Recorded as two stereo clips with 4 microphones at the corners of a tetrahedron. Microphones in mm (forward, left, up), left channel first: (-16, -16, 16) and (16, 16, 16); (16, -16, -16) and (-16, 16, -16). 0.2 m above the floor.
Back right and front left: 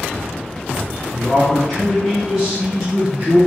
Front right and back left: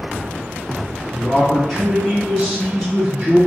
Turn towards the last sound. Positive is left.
turn(degrees=60)